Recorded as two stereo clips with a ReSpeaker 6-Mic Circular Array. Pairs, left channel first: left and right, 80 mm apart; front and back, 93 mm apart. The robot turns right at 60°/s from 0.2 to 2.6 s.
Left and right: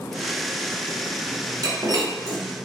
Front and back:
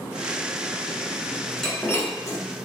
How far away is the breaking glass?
About 1.3 m.